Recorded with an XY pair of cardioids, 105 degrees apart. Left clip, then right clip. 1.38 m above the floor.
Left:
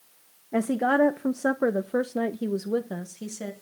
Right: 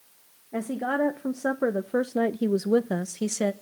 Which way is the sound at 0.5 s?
40° left.